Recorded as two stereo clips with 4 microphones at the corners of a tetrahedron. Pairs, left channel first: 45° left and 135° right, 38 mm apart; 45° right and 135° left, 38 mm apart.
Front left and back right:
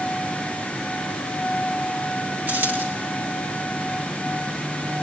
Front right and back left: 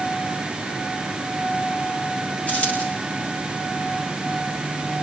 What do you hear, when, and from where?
2.5 s a dropped coin: 100° right, 9 m